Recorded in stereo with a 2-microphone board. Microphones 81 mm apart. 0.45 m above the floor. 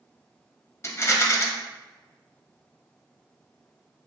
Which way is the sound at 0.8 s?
35° left (ahead or behind).